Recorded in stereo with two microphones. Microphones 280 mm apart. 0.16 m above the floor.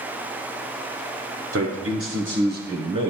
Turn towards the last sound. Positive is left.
turn(degrees=-15)  # may be behind; listen again after turning